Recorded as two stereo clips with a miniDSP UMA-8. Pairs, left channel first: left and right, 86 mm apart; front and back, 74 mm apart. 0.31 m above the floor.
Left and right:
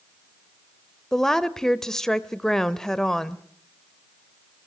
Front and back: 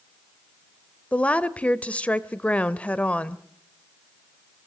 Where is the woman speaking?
15° left, 0.8 m.